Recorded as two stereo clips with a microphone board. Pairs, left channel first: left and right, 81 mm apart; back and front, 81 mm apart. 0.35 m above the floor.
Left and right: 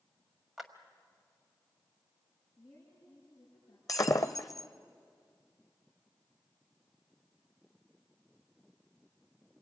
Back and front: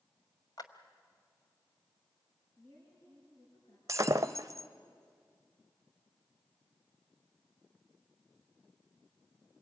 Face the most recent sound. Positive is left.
turn(degrees=50)